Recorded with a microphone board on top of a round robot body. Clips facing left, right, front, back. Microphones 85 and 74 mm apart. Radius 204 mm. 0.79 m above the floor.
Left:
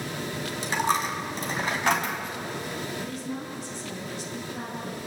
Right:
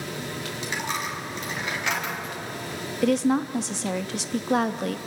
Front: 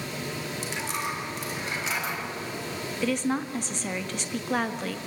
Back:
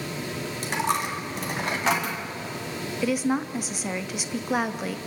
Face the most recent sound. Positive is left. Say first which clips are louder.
# right 12 dB, back 2 dB
turn(degrees=-100)